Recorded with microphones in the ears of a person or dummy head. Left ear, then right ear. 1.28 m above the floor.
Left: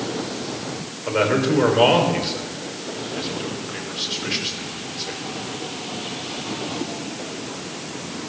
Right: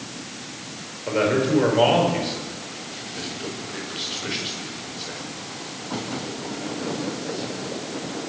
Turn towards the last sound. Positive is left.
turn(degrees=20)  # may be behind; listen again after turning